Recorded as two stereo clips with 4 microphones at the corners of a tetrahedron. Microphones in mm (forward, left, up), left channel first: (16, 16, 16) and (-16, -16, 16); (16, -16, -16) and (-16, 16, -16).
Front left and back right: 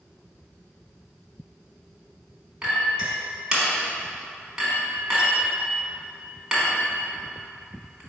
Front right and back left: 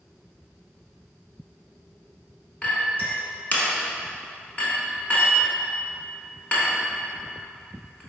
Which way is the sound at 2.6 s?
75° right.